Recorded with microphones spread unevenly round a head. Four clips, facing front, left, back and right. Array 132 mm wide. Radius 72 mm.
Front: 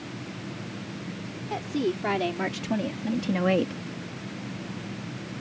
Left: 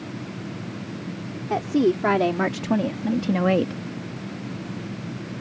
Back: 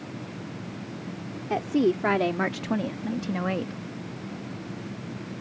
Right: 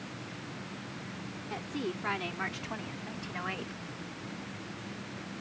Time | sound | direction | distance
1.5 | a woman speaking | 130° left | ?